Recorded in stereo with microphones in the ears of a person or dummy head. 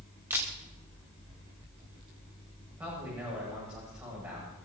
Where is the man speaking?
20° right (ahead or behind), 8.5 m.